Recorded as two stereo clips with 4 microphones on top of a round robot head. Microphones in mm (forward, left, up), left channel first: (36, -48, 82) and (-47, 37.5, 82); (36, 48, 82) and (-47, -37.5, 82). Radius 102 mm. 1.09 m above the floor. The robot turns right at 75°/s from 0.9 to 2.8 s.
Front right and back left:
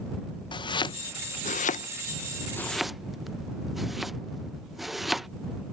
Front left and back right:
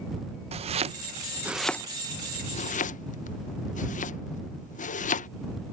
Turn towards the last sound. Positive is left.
turn(degrees=45)